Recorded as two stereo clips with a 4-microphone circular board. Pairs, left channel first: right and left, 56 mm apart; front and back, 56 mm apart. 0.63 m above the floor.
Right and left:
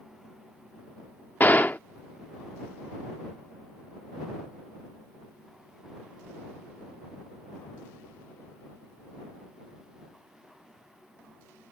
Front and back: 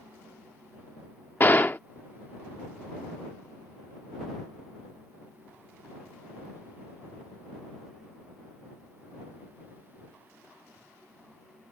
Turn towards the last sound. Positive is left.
turn(degrees=-40)